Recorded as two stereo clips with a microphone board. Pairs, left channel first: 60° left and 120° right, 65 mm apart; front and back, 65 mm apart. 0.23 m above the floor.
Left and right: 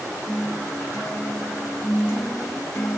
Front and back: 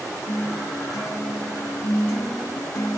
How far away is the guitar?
About 1.7 m.